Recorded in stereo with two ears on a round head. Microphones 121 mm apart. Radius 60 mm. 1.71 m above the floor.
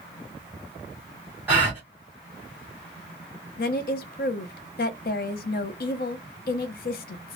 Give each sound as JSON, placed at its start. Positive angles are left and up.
{"t": 1.5, "sound": "a gasp", "side_deg": -15, "distance_m": 1.4}
{"t": 3.6, "sound": "a woman speaking", "side_deg": 75, "distance_m": 0.6}